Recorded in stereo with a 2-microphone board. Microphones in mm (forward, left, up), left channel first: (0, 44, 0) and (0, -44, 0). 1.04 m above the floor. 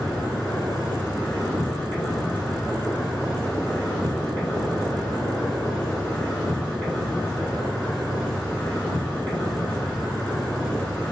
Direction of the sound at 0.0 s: 15° left (ahead or behind).